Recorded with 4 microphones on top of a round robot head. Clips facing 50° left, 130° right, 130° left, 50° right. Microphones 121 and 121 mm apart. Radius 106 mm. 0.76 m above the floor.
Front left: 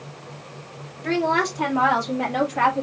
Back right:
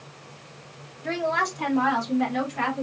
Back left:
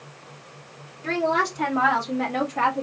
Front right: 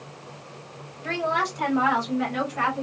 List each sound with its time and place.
1.0 s a woman speaking: 80° left, 3 m; by 2.8 s 85° left, 1.9 m